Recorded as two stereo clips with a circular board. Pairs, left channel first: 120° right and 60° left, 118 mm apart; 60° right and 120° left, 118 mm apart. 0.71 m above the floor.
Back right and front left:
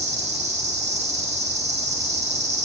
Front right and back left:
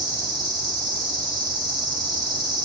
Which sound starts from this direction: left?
An insect, at 0.0 s.